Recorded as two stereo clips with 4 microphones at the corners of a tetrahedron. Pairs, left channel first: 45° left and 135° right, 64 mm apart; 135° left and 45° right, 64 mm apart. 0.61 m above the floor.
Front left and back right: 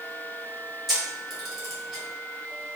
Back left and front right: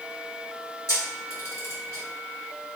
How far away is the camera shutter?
About 1.4 m.